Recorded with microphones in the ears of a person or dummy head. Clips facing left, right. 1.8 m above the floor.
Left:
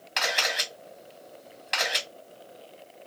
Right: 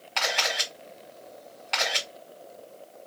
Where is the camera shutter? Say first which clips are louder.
Right 1 dB; 25° left (ahead or behind), 1.7 m.